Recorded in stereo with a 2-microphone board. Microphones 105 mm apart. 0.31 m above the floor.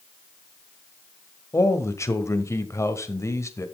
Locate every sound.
1.5 s a man speaking: 25° left (ahead or behind), 1.3 m